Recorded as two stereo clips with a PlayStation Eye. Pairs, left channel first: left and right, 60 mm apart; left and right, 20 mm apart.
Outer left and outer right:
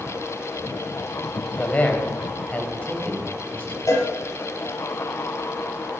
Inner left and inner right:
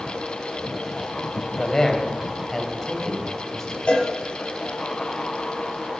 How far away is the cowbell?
About 5 m.